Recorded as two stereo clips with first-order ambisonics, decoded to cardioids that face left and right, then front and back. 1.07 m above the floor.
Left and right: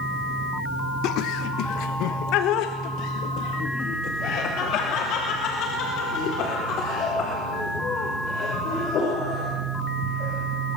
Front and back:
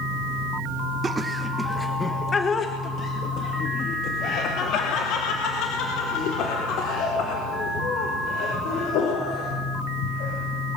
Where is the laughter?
110° left, 1.2 m; by 10.3 s 35° left, 6.5 m.